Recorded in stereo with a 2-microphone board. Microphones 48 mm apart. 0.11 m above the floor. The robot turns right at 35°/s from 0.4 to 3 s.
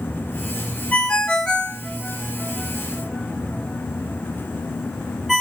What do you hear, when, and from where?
0.9 s a ringtone: 20° left (ahead or behind), 0.5 m; by 5.4 s 5° right (ahead or behind), 0.5 m